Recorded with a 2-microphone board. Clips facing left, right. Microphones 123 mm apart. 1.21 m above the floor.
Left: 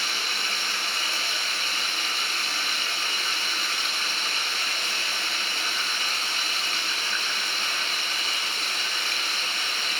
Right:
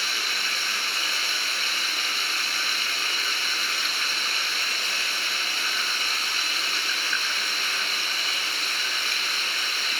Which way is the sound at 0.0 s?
45° left (ahead or behind).